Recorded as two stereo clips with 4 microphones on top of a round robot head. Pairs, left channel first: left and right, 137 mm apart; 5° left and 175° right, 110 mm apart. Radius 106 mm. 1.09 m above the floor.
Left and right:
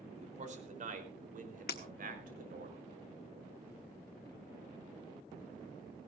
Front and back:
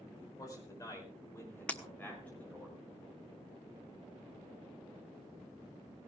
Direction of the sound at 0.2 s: 55° right.